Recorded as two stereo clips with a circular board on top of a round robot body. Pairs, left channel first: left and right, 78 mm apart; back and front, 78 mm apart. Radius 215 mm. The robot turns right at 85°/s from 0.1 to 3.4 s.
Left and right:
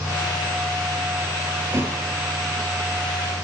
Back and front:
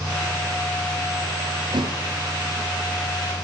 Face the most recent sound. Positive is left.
turn(degrees=110)